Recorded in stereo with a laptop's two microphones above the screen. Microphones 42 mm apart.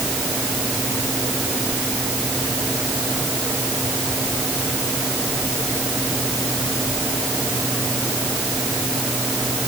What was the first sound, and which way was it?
Only background noise.